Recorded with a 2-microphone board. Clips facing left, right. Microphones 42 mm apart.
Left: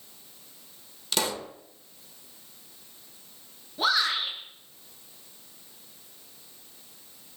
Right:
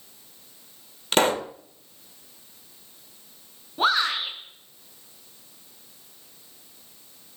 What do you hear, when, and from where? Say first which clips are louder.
1.1 s a pop: right 9 dB; 45° right (ahead or behind), 0.7 m
3.8 s a shout: right 3 dB; 35° right (ahead or behind), 5.5 m